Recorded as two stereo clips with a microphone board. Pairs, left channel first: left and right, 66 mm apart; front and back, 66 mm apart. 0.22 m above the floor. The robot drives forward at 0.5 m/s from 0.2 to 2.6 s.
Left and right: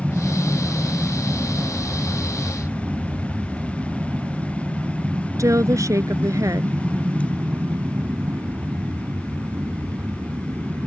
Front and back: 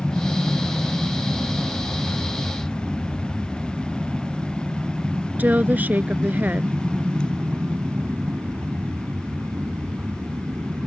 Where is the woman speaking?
120° right.